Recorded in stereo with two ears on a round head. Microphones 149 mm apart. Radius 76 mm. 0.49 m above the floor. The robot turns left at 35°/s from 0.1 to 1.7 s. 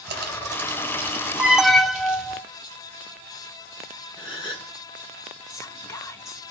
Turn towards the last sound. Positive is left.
turn(degrees=20)  # may be behind; listen again after turning